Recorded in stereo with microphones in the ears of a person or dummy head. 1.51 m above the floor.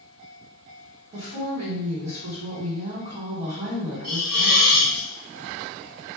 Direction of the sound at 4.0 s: 65° right (ahead or behind).